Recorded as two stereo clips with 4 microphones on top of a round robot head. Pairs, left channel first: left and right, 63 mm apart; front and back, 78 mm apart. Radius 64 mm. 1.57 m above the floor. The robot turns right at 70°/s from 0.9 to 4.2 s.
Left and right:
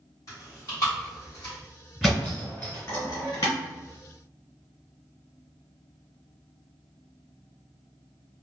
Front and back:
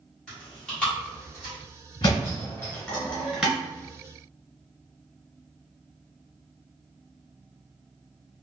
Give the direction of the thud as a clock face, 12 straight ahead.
12 o'clock.